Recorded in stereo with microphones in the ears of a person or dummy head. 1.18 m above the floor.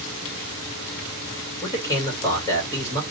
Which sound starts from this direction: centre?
A man speaking, at 1.6 s.